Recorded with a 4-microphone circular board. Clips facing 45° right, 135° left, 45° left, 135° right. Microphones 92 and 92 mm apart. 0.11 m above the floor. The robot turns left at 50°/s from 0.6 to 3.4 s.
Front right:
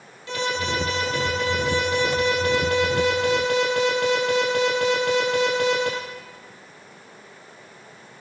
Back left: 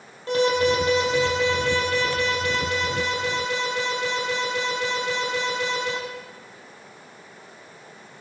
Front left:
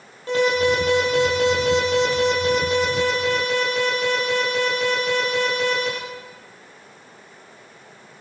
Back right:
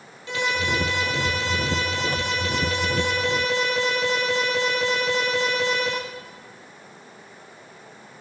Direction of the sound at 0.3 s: 90° left.